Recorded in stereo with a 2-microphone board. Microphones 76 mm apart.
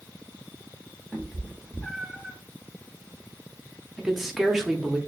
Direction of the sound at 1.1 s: 5° left (ahead or behind).